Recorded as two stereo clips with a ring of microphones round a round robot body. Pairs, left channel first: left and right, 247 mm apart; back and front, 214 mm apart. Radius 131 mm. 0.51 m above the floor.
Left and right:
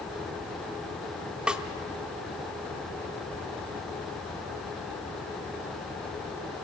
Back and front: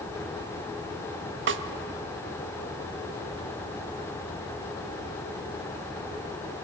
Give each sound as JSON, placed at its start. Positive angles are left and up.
{"t": 1.5, "sound": "a snare drum", "azimuth_deg": -5, "distance_m": 0.8}